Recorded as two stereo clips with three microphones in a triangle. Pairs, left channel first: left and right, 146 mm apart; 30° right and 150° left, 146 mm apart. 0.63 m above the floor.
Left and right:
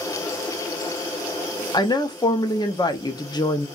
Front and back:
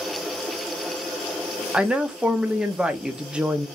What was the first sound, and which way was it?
A woman speaking, 75° left.